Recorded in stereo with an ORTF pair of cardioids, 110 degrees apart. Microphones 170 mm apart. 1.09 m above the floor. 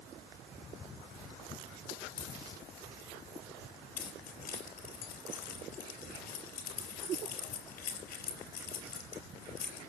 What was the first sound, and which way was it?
A dropped coin, 70° left.